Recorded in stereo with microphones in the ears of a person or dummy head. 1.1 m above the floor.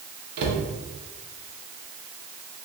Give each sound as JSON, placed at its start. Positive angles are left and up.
{"t": 0.4, "sound": "a cupboard door", "side_deg": -60, "distance_m": 0.7}